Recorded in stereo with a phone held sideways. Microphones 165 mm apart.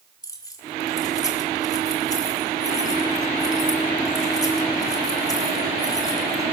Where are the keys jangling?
20° left (ahead or behind), 1.9 m.